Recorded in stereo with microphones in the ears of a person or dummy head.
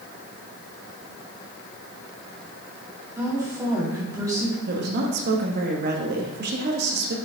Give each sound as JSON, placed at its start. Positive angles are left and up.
{"t": 3.2, "sound": "a woman speaking", "side_deg": -20, "distance_m": 2.5}
{"t": 4.7, "sound": "a woman speaking", "side_deg": -60, "distance_m": 1.4}